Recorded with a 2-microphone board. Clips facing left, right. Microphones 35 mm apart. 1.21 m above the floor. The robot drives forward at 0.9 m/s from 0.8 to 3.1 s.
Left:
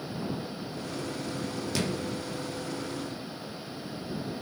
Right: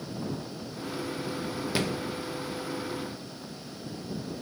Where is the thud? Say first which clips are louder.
Right 2 dB; 20° right (ahead or behind), 1.0 m; by 1.9 s 25° right (ahead or behind), 0.9 m.